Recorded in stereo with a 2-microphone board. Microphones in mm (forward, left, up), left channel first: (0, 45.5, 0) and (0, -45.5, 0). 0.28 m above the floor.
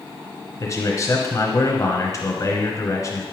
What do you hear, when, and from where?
0.6 s a man speaking: 40° left (ahead or behind), 1.4 m